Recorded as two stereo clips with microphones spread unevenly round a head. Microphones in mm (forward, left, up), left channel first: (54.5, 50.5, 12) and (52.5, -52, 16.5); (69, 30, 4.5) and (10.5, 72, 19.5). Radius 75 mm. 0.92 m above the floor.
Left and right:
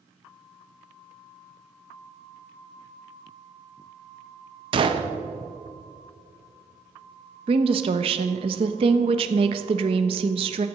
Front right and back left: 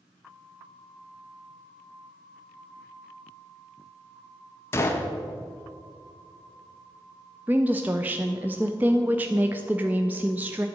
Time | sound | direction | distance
4.7 | a gunshot | 70° right | 0.9 m
7.5 | a woman speaking | 135° right | 0.6 m